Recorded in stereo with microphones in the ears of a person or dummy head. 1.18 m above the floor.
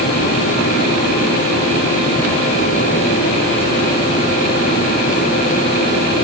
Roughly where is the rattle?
No rattle in this recording.